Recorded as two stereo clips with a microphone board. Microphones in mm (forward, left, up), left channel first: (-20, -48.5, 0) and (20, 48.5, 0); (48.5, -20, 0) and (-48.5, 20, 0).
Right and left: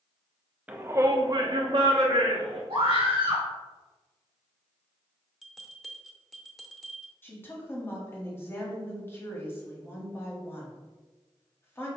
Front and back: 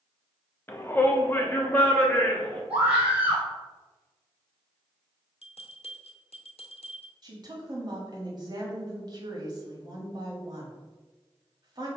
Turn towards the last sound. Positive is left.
turn(degrees=-175)